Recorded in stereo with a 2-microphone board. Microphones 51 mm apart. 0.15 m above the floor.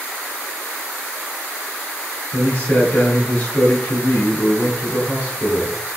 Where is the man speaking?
35° left (ahead or behind), 1.5 m.